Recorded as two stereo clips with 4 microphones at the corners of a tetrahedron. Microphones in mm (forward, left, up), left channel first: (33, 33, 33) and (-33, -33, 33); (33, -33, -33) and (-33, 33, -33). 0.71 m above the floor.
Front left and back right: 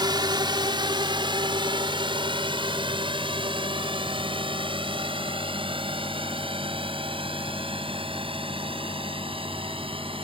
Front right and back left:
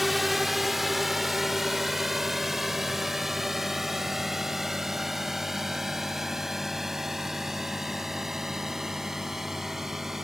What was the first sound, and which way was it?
A drone, 135° right.